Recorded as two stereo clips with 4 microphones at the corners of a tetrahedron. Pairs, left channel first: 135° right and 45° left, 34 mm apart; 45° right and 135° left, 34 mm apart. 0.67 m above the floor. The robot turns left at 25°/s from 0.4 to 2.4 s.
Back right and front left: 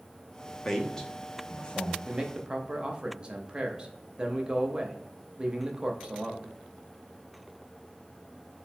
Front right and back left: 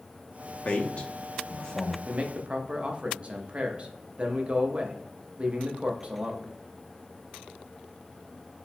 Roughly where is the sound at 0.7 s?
Ahead right.